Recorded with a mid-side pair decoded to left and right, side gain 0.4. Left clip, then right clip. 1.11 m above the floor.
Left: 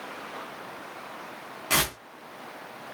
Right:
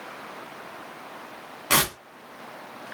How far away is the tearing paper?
About 1.9 m.